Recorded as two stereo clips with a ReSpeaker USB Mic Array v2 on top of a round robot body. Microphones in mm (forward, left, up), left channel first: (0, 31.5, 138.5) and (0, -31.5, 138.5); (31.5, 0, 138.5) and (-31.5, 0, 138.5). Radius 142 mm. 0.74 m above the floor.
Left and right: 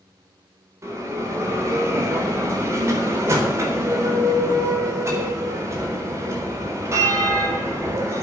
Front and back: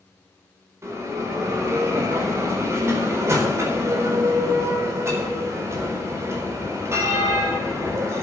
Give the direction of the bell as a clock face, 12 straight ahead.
4 o'clock.